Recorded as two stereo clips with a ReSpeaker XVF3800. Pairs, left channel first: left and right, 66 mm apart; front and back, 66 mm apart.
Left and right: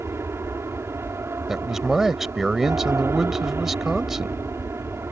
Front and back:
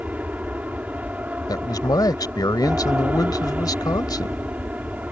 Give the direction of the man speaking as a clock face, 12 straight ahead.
12 o'clock.